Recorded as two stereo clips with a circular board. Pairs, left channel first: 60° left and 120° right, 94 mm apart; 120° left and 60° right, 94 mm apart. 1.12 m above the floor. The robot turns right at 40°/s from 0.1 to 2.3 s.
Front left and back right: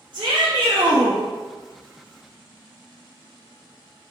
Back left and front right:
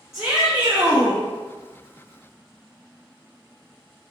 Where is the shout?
145° right, 0.7 m; by 1.2 s 100° right, 0.7 m.